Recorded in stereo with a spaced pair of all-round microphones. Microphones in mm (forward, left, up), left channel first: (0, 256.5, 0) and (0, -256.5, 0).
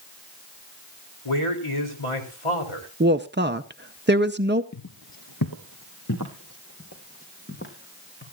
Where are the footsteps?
35° left (ahead or behind), 1.5 m; by 8.2 s 20° left (ahead or behind), 4.5 m.